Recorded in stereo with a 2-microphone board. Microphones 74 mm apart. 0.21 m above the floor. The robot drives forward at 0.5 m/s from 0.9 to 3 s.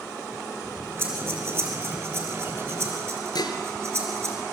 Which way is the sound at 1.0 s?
30° right (ahead or behind).